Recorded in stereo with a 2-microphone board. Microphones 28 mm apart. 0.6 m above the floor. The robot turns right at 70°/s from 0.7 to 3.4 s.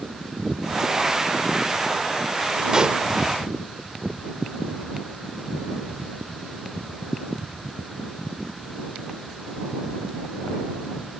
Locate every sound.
2.7 s a pop: 25° right (ahead or behind); by 3.0 s 40° right (ahead or behind)